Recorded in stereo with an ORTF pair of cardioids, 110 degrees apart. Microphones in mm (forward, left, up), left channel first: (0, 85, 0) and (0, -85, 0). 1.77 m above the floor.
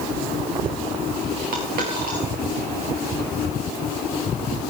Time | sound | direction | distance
1.5 | a dropped coin | 65° right | 7.5 m